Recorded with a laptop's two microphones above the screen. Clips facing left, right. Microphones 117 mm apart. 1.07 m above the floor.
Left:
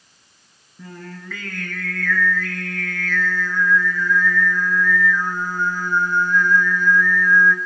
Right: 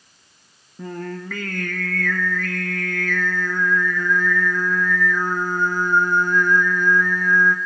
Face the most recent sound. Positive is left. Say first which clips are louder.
# right 7 dB
turn(degrees=-50)  # may be behind; listen again after turning